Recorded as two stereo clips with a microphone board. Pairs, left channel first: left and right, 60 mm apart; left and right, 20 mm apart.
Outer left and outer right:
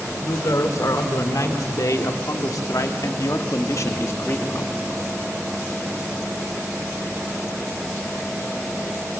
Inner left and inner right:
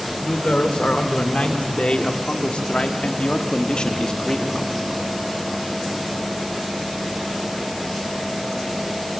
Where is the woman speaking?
65° left (ahead or behind), 2.5 m; by 4.7 s 35° left (ahead or behind), 1.1 m.